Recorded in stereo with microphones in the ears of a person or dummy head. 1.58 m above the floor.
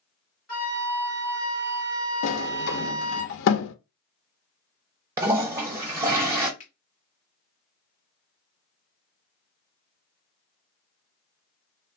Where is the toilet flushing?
15° right (ahead or behind), 1.0 m.